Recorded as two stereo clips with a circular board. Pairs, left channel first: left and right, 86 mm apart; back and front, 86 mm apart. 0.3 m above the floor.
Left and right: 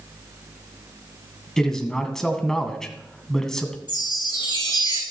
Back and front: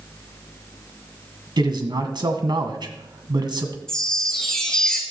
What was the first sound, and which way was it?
A man speaking, 10° left.